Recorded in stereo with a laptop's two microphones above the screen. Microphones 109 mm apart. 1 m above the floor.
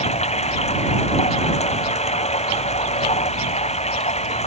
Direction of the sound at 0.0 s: 85° left.